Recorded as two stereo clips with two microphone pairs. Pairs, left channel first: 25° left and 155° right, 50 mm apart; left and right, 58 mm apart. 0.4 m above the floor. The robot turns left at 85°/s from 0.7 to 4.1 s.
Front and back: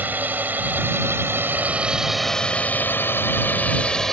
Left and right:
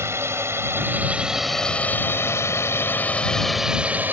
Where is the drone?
110° right; by 4.1 s 50° right.